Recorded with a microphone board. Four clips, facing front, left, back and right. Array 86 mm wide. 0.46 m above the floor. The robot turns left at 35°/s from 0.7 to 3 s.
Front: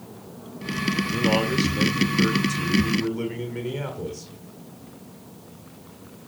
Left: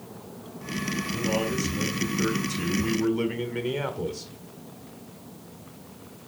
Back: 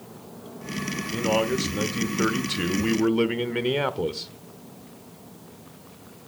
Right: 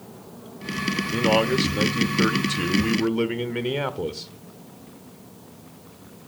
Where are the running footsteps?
No running footsteps in this recording.